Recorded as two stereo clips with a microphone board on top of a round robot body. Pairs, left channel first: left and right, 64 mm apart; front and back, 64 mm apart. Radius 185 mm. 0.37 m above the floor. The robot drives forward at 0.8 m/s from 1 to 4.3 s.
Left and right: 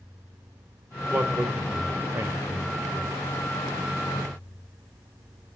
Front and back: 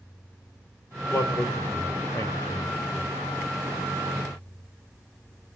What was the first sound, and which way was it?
A man speaking, 30° right.